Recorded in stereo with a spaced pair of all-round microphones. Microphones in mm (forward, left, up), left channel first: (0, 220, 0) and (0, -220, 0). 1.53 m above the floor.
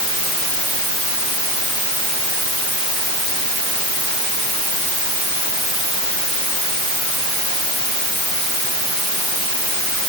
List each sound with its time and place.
Only background noise.